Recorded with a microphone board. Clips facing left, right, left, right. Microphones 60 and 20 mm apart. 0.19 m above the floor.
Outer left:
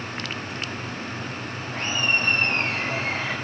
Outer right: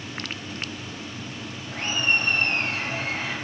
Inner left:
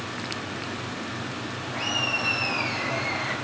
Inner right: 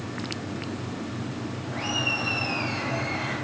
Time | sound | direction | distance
1.7 | laughter | 70° left (ahead or behind) | 4.5 m